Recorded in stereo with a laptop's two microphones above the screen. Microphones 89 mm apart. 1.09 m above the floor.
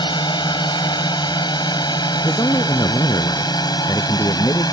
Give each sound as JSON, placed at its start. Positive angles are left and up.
{"t": 0.0, "sound": "a drone", "side_deg": 60}
{"t": 2.2, "sound": "a man speaking", "side_deg": 45}